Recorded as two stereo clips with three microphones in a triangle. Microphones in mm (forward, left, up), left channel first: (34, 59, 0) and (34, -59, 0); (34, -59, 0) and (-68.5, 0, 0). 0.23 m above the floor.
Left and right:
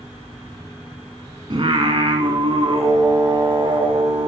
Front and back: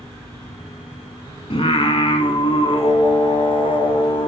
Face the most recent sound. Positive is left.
turn(degrees=-55)